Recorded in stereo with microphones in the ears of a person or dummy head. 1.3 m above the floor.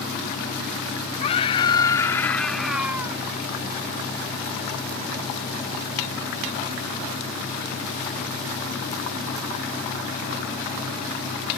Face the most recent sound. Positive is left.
turn(degrees=-25)  # may be behind; listen again after turning